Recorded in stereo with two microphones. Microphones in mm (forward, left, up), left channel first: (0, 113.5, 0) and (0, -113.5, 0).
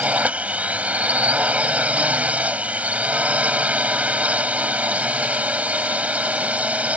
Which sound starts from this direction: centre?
A drone, at 0.0 s.